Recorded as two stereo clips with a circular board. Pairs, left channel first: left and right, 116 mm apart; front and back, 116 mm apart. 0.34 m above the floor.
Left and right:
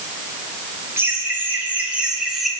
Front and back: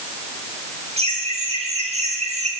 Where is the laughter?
160° right, 6 m; by 2.5 s straight behind, 4 m.